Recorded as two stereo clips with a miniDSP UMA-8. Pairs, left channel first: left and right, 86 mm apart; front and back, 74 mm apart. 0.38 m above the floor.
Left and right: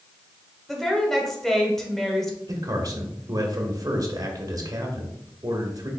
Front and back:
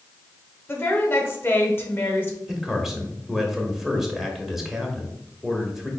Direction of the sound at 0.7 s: 10° left.